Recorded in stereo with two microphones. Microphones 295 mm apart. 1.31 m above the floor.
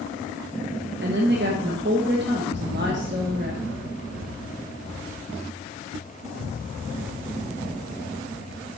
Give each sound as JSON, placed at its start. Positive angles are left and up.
{"t": 1.0, "sound": "a woman speaking", "side_deg": -40, "distance_m": 1.3}